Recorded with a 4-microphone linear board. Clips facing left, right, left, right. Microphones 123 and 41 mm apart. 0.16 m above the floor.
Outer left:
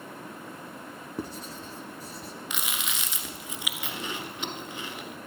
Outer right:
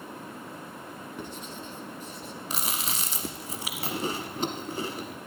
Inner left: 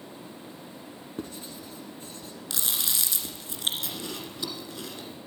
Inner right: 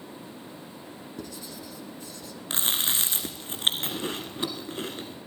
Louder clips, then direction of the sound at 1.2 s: Outer left 5 dB, inner left 3 dB; 35° left (ahead or behind).